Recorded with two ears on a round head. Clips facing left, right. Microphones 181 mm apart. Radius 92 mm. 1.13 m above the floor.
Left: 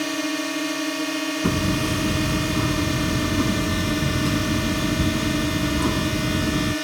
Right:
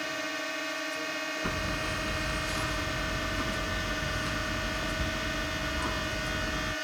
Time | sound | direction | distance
0.0 | a drone | 60° left (ahead or behind) | ?
1.4 | hammering | 55° left (ahead or behind) | ?